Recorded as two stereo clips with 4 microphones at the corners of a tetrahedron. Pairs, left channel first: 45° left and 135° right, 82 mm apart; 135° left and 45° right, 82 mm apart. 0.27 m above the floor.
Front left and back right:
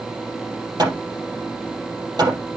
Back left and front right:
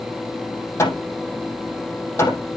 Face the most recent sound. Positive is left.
turn(degrees=-165)